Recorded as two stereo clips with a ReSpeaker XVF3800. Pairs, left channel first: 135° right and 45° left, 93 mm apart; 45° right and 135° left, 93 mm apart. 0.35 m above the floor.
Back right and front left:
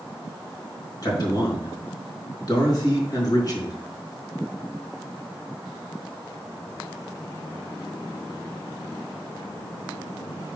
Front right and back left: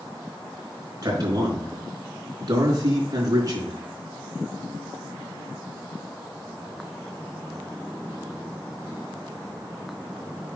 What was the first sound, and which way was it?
A man speaking, straight behind.